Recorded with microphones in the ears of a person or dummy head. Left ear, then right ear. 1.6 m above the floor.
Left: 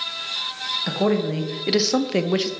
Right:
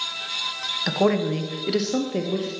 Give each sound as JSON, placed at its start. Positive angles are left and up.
{"t": 0.9, "sound": "a woman speaking", "side_deg": -20, "distance_m": 1.5}